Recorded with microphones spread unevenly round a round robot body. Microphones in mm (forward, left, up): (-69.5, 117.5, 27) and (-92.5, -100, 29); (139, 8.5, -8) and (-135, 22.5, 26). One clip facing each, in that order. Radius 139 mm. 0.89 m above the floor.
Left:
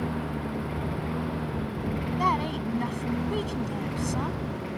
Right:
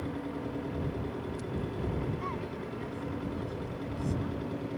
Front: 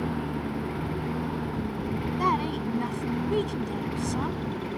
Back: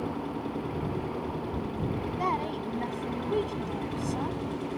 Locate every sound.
0.0 s a lawn mower: 50° left; by 4.8 s 55° left
2.2 s a woman speaking: 60° left